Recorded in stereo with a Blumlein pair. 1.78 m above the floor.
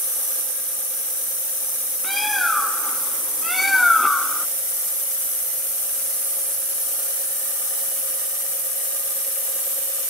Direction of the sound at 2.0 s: 5° left.